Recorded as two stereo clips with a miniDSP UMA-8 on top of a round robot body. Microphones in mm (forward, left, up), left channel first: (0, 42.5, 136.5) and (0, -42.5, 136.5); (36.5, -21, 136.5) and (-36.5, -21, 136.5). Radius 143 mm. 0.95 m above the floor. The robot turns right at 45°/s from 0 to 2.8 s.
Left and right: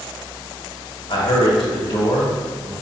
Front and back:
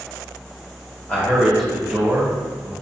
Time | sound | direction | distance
1.1 | a man speaking | 70° left | 1.7 m